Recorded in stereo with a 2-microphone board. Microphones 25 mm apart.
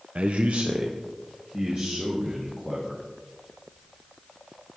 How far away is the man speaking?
About 0.5 m.